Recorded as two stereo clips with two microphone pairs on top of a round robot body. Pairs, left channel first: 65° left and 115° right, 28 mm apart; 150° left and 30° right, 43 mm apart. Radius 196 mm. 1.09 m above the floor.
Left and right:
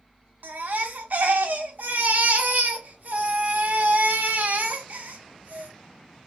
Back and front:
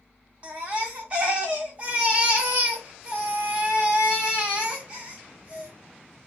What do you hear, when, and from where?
0.4 s a baby crying: 95° right, 0.6 m